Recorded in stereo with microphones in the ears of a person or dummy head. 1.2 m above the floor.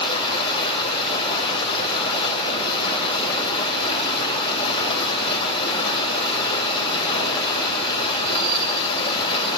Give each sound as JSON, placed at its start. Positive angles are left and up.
{"t": 0.0, "sound": "running water", "side_deg": 25, "distance_m": 2.0}